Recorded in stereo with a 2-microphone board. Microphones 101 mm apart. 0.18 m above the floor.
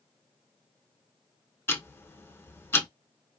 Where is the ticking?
25° left (ahead or behind), 0.5 m.